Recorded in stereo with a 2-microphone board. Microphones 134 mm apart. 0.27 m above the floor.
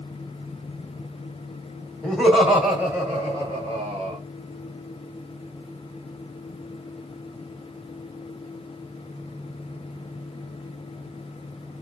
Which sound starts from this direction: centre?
Laughter, at 2.0 s.